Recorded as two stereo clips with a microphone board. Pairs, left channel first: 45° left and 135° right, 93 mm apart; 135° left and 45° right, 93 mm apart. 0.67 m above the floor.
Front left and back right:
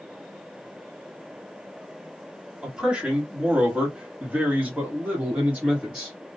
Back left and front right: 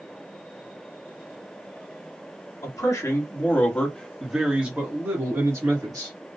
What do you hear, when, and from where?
2.6 s a man speaking: 150° left, 1.4 m; by 6.2 s 65° right, 1.6 m